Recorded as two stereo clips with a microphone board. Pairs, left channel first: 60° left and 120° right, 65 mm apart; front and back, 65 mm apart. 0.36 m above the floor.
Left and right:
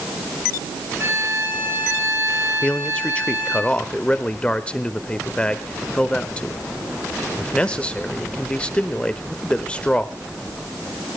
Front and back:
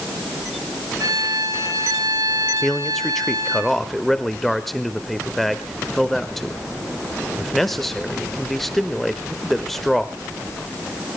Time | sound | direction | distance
1.0 | a violin | 170° right | 6.5 m
2.6 | a man speaking | 80° left | 1.0 m